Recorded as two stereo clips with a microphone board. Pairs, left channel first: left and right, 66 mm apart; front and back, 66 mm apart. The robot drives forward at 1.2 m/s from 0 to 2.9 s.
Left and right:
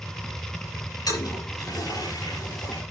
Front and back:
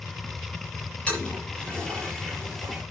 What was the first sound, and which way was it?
A toilet flushing, 70° left.